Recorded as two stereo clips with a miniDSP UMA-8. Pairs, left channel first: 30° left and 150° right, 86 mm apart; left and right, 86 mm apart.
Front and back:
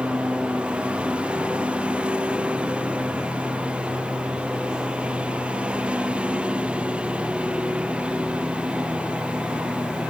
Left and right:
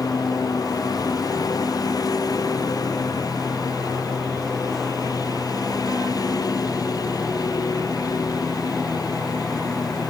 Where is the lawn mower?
130° left.